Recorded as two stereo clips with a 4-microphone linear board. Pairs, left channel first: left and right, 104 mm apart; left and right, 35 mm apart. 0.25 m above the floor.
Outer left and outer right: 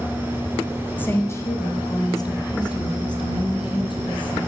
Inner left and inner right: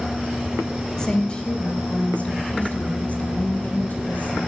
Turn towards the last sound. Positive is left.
turn(degrees=50)  # may be behind; listen again after turning